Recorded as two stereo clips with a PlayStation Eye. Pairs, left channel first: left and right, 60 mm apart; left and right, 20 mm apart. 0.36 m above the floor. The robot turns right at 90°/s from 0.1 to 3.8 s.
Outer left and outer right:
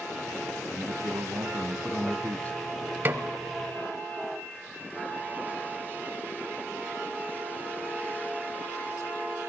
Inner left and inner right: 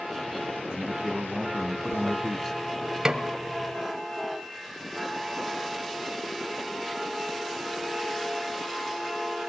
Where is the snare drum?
35° right (ahead or behind), 1.2 m; by 3.2 s 45° right (ahead or behind), 1.2 m.